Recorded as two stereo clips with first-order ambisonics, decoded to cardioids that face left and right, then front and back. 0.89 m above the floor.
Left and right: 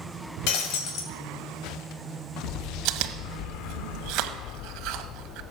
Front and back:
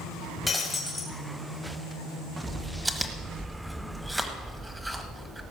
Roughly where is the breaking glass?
Left.